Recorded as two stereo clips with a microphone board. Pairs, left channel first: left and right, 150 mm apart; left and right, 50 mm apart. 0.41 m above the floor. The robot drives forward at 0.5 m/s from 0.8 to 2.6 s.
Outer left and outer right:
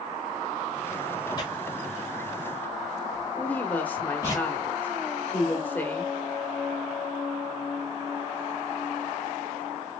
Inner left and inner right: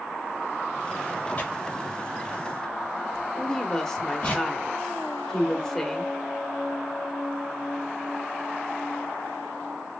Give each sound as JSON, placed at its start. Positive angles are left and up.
{"t": 1.4, "sound": "tearing paper", "side_deg": 30, "distance_m": 1.4}
{"t": 3.3, "sound": "a woman speaking", "side_deg": 15, "distance_m": 1.0}